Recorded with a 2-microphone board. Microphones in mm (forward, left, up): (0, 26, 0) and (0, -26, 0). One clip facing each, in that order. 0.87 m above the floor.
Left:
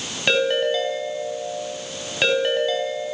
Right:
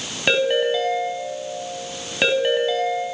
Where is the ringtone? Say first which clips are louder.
Right 1 dB; 10° right (ahead or behind), 4 m.